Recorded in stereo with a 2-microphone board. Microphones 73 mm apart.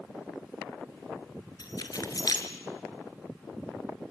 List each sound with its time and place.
1.6 s keys jangling: 55° left (ahead or behind), 2 m